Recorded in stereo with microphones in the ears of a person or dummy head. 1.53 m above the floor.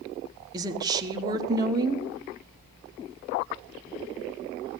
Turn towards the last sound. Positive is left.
turn(degrees=-25)  # may be behind; listen again after turning